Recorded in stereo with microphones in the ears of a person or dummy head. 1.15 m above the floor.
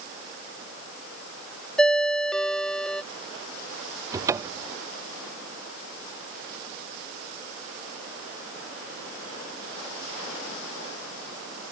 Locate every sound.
1.8 s a ringtone: centre (ahead or behind)
4.1 s a cupboard door: 15° right (ahead or behind)